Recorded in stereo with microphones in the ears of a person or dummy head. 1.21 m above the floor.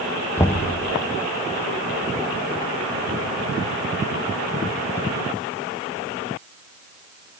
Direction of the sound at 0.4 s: 5° left (ahead or behind).